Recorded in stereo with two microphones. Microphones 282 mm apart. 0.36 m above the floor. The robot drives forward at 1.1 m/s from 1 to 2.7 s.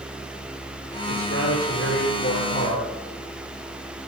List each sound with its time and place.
1.1 s a man speaking: 55° left (ahead or behind), 8 m; by 2.9 s 45° left (ahead or behind), 9 m